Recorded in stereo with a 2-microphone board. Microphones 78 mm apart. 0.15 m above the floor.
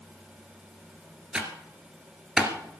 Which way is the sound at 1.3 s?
10° right (ahead or behind).